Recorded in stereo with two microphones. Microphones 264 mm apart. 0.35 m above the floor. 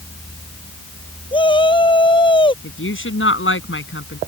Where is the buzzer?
No buzzer in this recording.